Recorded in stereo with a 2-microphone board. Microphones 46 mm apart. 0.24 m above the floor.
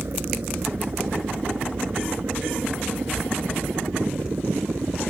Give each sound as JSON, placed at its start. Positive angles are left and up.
{"t": 0.0, "sound": "a helicopter", "side_deg": -60}